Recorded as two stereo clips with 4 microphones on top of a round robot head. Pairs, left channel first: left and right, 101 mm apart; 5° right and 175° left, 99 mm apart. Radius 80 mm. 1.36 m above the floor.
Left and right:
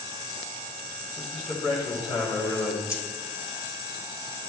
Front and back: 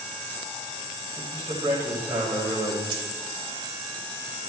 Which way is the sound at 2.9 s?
145° left.